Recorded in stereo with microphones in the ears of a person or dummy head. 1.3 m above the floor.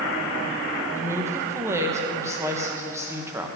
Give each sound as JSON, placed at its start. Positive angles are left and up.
{"t": 0.9, "sound": "a woman speaking", "side_deg": -20, "distance_m": 0.8}